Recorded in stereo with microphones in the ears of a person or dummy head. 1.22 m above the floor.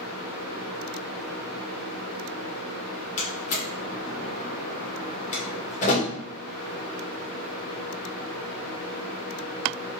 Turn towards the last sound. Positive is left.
turn(degrees=45)  # may be behind; listen again after turning